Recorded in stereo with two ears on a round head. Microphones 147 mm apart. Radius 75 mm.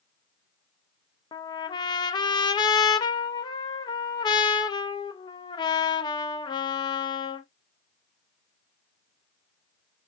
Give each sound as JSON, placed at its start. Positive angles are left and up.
{"t": 1.3, "sound": "a trumpet", "side_deg": 25, "distance_m": 0.5}